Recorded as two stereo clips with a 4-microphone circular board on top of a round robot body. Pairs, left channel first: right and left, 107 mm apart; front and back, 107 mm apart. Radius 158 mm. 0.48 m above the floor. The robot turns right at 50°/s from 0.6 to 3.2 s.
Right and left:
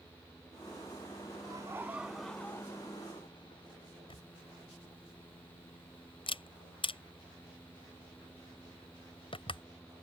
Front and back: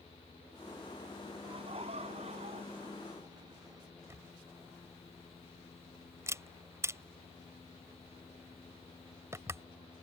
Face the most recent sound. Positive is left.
turn(degrees=-120)